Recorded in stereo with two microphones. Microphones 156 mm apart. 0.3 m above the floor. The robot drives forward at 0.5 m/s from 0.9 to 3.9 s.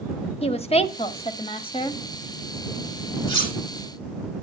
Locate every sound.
0.4 s a woman speaking: 40° left (ahead or behind), 1.3 m; by 2.0 s 35° left (ahead or behind), 1.5 m
3.3 s cutlery clinking: 30° left (ahead or behind), 7 m